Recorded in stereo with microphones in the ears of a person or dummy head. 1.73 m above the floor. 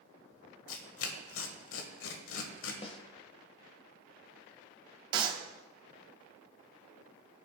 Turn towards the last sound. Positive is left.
turn(degrees=-25)  # may be behind; listen again after turning